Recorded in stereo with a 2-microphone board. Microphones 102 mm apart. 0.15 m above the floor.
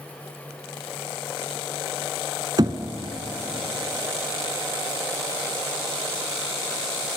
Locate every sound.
2.6 s knocking: 45° right (ahead or behind), 0.9 m